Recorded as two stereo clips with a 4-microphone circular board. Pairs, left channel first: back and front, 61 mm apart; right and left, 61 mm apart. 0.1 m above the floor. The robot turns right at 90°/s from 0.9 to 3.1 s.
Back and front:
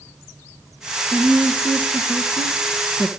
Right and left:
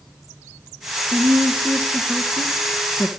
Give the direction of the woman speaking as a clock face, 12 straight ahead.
9 o'clock.